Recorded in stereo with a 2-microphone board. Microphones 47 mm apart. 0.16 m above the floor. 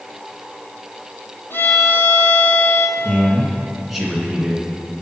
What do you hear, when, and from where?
1.5 s a violin: 55° left (ahead or behind), 1.1 m
3.0 s a man speaking: 5° right (ahead or behind), 1.7 m